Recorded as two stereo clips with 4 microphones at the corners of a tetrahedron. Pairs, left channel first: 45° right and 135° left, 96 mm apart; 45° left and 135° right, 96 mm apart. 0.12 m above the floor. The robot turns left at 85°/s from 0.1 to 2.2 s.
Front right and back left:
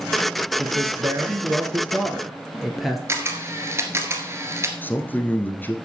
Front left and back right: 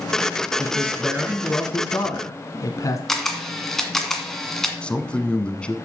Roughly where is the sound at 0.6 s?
Behind.